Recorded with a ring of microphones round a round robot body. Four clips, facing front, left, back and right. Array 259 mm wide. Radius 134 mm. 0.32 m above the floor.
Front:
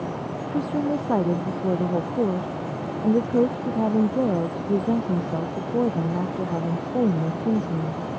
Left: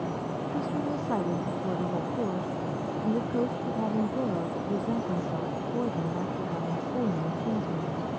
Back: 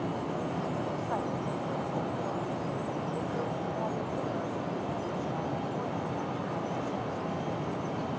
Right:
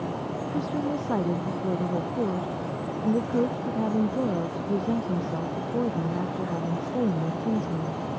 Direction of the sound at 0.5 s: 10° right.